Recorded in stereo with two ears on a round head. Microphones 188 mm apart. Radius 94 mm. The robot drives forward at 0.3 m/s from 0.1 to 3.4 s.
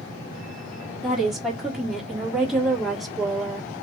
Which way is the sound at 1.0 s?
Centre (ahead or behind).